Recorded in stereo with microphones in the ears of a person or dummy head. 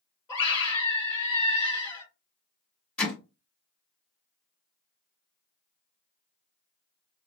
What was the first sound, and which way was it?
A scream, 20° left (ahead or behind).